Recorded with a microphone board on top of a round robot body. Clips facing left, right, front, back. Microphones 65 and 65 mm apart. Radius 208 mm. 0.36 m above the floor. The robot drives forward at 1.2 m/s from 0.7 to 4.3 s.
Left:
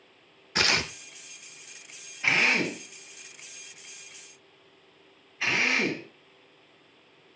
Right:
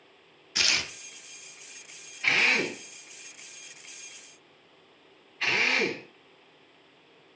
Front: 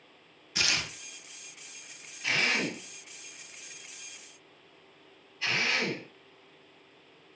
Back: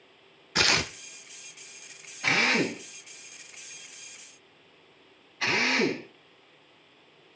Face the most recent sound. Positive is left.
turn(degrees=175)